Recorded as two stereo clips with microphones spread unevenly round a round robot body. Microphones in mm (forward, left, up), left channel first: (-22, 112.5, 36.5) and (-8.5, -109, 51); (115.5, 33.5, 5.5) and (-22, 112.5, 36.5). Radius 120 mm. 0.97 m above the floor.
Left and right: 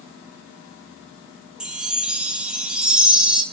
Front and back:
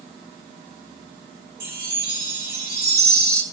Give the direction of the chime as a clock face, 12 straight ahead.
6 o'clock.